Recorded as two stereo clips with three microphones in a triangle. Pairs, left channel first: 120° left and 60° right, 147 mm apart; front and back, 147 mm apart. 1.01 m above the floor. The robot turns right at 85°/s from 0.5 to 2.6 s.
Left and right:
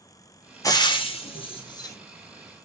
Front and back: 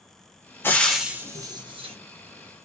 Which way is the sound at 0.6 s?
65° left.